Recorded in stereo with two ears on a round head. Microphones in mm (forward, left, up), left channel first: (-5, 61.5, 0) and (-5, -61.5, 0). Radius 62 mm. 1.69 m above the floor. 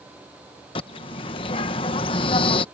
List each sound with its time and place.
0.8 s a bird: 40° left (ahead or behind)